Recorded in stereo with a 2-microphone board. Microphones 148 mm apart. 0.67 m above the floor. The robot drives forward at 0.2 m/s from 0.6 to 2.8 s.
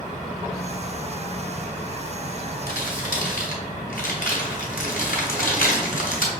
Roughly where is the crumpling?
Left.